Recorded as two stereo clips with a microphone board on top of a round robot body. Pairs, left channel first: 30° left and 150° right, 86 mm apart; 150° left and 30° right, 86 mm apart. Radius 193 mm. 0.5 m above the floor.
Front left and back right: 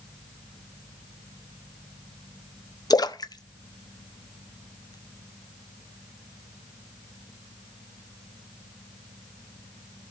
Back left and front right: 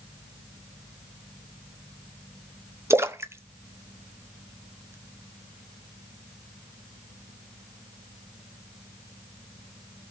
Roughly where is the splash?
Ahead.